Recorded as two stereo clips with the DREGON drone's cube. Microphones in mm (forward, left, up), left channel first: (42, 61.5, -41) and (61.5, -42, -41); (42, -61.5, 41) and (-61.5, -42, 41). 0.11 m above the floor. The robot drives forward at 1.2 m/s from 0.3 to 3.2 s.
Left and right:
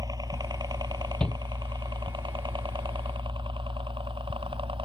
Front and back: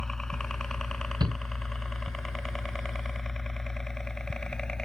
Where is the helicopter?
95° right.